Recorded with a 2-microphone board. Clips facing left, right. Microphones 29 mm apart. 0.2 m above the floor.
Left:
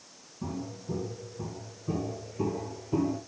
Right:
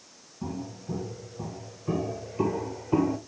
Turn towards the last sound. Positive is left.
turn(degrees=-80)